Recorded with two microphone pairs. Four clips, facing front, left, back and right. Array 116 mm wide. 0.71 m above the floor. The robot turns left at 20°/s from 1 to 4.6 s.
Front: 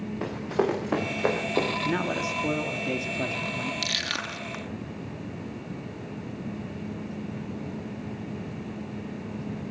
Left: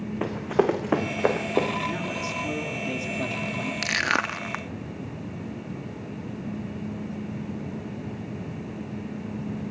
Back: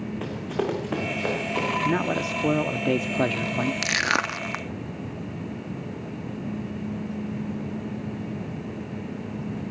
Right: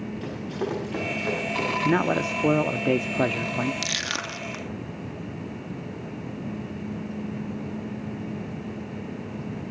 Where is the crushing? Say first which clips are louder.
Left 6 dB, back 8 dB; 150° left, 0.7 m; by 4.6 s 135° left, 0.7 m.